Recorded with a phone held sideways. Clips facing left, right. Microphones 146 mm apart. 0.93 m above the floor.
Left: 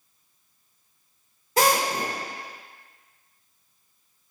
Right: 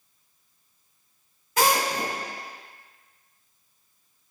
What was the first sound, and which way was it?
A drill, 35° left (ahead or behind).